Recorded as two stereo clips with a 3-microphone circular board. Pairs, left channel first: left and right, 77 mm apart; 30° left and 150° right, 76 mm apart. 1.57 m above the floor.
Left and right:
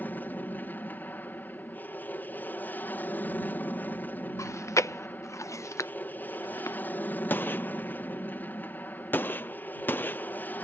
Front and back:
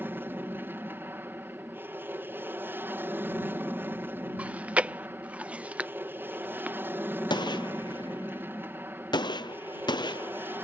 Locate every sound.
0.0 s an aircraft: 150° left
4.4 s chewing: 140° left
7.3 s a gunshot: 30° left